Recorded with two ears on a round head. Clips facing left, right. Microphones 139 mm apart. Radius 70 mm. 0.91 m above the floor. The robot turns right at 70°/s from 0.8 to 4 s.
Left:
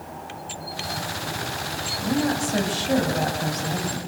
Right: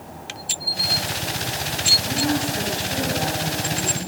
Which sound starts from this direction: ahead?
A woman speaking, at 2.0 s.